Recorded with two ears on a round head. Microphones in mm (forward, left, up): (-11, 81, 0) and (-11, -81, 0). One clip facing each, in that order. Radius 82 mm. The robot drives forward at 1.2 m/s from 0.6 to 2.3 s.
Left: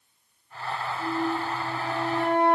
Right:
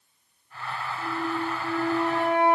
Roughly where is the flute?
Right.